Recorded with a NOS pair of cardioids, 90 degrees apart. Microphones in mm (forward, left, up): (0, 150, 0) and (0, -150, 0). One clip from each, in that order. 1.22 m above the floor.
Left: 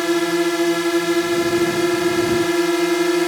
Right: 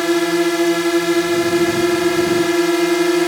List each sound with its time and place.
0.0 s a drone: 15° right